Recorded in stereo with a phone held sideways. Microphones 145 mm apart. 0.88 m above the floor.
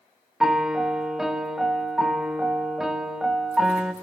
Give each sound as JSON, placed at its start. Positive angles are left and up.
{"t": 0.4, "sound": "a piano", "side_deg": -5, "distance_m": 1.4}